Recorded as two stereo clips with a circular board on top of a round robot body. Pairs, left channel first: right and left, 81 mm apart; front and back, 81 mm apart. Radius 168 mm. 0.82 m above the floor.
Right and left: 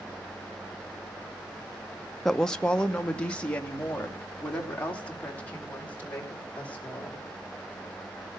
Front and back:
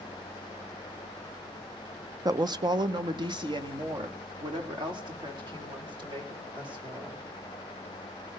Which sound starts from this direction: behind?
A woman speaking, at 2.2 s.